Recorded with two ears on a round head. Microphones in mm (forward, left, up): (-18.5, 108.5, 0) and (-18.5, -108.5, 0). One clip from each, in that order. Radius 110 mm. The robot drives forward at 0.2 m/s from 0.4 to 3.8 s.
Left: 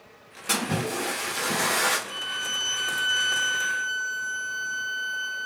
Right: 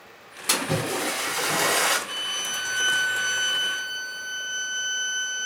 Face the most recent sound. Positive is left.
turn(degrees=-20)  # may be behind; listen again after turning